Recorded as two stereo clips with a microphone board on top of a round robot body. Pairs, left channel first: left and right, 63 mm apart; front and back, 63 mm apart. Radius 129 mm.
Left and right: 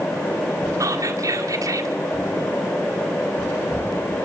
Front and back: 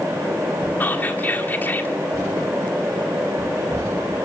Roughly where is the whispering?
Ahead right.